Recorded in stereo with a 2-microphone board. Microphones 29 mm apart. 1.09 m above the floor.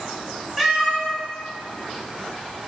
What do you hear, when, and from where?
0.6 s a cat meowing: 5° right (ahead or behind), 1.4 m